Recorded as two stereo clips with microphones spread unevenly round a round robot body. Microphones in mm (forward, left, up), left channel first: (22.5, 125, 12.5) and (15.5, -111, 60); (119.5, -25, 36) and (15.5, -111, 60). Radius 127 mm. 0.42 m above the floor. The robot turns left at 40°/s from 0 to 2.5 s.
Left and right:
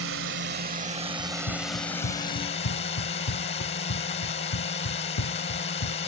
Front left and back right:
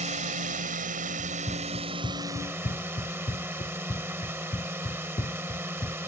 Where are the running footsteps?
125° left; by 6.0 s 95° left.